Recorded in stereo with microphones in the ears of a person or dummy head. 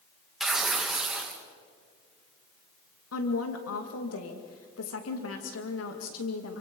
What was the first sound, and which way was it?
Tearing paper, centre (ahead or behind).